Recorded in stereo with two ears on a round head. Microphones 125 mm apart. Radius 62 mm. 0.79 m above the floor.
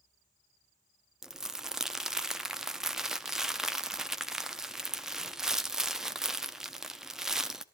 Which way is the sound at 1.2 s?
5° right (ahead or behind).